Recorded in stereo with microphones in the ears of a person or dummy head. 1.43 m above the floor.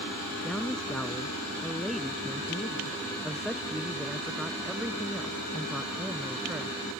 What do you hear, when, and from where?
0.4 s a man speaking: 5° left (ahead or behind); by 6.7 s 5° right (ahead or behind)